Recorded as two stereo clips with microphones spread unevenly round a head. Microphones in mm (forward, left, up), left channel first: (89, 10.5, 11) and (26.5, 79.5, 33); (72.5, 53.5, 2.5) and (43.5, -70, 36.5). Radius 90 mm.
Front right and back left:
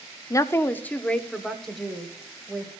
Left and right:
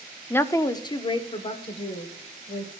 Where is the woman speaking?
5° left, 0.7 m; by 2.7 s 45° left, 2 m.